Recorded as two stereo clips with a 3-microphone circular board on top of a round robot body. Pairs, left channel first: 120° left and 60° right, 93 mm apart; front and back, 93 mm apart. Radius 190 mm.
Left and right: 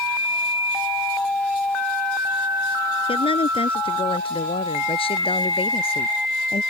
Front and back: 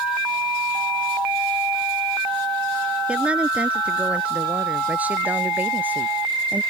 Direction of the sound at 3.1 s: 100° left.